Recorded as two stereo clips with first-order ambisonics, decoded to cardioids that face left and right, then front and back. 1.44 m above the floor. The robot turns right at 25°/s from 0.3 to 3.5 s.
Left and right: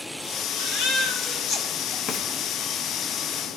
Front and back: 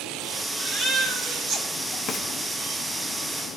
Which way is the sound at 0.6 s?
110° left.